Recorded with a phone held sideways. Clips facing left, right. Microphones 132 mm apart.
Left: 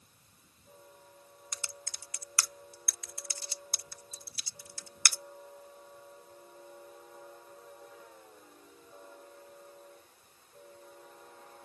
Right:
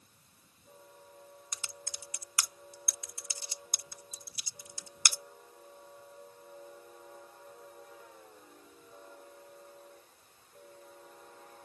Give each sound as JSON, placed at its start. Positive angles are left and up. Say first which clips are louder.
{"t": 1.5, "sound": "typing on a keyboard", "louder": "left 2 dB", "side_deg": -15}